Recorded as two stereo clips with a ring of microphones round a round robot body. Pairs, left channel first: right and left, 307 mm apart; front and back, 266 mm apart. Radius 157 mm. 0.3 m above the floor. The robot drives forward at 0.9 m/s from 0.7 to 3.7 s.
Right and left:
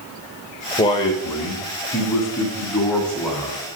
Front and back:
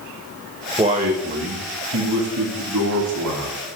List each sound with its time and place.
0.8 s a man speaking: 140° right, 0.9 m; by 3.6 s 175° right, 3 m